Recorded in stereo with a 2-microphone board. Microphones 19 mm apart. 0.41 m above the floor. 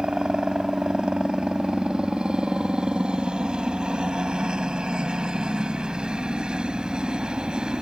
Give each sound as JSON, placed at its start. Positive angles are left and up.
{"t": 0.0, "sound": "a helicopter", "side_deg": -60}